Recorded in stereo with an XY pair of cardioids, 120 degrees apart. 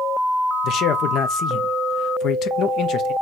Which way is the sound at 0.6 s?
70° left.